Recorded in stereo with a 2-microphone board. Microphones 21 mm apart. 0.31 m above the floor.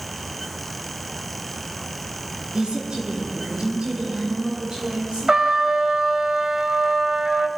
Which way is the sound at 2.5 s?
50° right (ahead or behind).